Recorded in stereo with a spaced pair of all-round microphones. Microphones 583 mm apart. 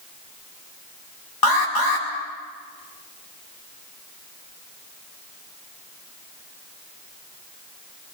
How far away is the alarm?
About 2.5 m.